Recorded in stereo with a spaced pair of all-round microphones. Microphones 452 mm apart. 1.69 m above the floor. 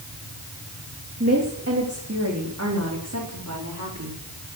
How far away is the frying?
No frying in this recording.